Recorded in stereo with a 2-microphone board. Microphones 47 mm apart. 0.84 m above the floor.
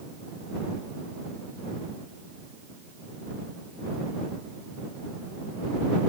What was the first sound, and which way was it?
Only background noise.